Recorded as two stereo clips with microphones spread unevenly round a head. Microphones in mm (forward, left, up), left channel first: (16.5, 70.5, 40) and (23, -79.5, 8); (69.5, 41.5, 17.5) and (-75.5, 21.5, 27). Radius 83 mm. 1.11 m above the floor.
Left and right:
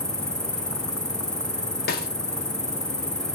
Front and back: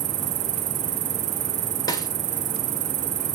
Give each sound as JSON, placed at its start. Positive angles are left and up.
{"t": 0.0, "sound": "an insect", "azimuth_deg": -170, "distance_m": 1.4}
{"t": 1.9, "sound": "a snare drum", "azimuth_deg": 70, "distance_m": 2.5}